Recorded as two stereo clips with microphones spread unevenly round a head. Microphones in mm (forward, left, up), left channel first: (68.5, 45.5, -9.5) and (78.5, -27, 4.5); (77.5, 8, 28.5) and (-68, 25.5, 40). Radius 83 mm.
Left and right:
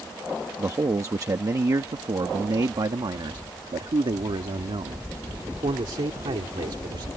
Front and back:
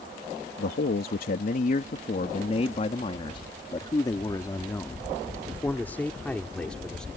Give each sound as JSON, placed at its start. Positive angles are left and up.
{"t": 0.6, "sound": "a man speaking", "azimuth_deg": -30}